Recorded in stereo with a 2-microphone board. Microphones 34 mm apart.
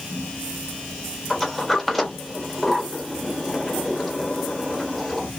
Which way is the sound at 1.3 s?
Centre (ahead or behind).